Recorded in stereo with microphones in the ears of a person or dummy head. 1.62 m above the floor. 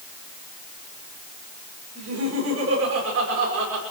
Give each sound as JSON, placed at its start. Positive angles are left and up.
{"t": 1.9, "sound": "laughter", "side_deg": -75, "distance_m": 7.0}